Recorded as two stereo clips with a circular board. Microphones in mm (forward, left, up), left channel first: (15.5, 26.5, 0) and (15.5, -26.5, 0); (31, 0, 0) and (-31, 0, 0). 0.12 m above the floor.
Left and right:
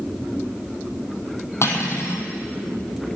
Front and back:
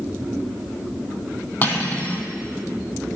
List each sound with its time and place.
1.6 s cutlery clinking: 55° left, 2.5 m